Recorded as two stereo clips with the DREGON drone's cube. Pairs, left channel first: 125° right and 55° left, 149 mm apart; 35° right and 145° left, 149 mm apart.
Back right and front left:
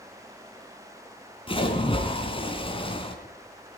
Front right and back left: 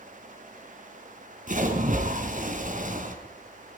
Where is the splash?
Straight behind, 3.5 m.